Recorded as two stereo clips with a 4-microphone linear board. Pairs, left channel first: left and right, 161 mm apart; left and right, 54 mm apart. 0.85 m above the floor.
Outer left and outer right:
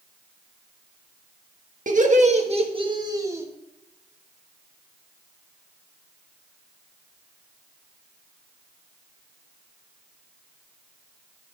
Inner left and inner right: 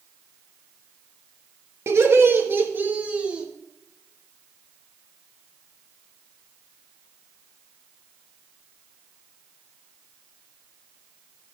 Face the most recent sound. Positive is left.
turn(degrees=-15)  # may be behind; listen again after turning